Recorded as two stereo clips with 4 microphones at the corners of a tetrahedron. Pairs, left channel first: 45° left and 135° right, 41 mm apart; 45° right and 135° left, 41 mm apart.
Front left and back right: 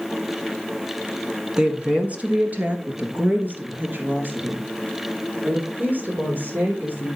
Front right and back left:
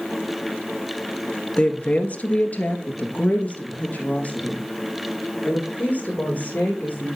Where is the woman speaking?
80° right, 1.4 m; by 7.1 s 95° right, 8 m.